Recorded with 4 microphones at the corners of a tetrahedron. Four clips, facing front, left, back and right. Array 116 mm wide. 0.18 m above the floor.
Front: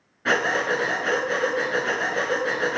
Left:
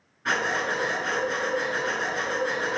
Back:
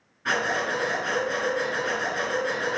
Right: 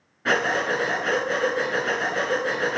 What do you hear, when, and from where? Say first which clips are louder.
0.2 s breathing: right 3 dB, front 3 dB; 45° right, 2 m